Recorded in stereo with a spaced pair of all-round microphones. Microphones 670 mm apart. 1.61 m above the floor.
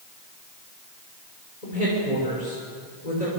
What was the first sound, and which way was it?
A woman speaking, 75° left (ahead or behind).